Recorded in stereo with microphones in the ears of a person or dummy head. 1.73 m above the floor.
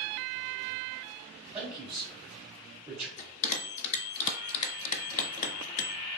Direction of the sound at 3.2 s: 40° left (ahead or behind).